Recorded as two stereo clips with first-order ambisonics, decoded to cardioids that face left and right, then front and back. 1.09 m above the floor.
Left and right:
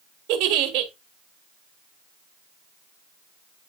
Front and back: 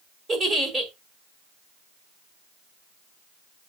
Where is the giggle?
105° right, 1.6 m.